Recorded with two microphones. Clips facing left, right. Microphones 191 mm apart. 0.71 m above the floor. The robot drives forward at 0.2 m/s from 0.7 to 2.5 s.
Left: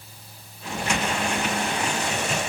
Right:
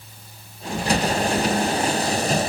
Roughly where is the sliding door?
I don't hear a sliding door.